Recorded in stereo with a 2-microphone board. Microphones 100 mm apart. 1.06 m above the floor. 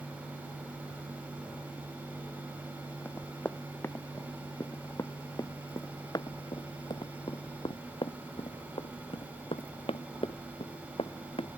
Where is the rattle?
No rattle in this recording.